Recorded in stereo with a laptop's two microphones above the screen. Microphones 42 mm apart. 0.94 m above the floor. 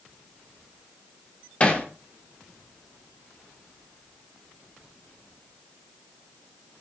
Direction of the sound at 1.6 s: 25° left (ahead or behind).